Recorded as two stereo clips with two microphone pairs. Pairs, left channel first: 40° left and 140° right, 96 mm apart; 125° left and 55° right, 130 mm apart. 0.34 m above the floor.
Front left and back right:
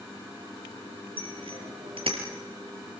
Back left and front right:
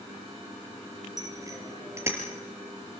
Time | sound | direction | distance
1.2 | a bicycle bell | 115° right | 6 m